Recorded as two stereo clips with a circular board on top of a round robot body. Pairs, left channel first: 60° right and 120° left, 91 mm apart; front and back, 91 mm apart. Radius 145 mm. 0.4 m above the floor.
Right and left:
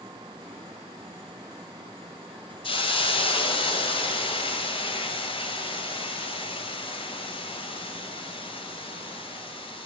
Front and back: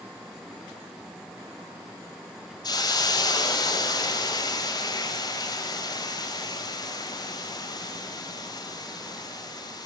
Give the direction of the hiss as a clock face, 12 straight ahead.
1 o'clock.